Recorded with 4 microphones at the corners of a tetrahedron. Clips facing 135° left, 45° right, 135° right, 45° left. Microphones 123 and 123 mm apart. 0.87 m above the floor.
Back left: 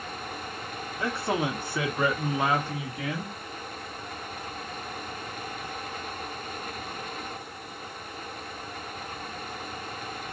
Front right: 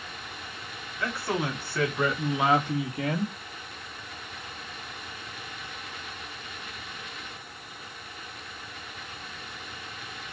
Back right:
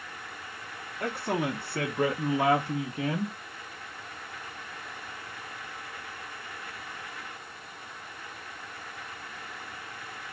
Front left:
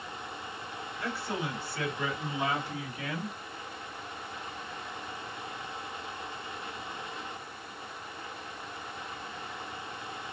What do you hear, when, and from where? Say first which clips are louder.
1.0 s a man speaking: back left 2 dB, back right 6 dB; 165° right, 2.5 m; by 3.4 s 80° right, 1.6 m